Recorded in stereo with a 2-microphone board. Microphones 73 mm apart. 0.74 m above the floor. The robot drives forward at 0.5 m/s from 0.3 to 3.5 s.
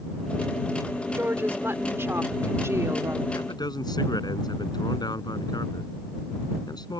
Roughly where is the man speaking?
Left.